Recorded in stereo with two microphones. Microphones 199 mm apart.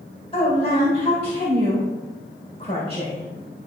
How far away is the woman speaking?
About 2 m.